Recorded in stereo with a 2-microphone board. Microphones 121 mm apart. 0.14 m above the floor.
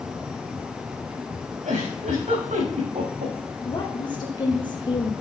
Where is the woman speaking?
40° left (ahead or behind), 4 m.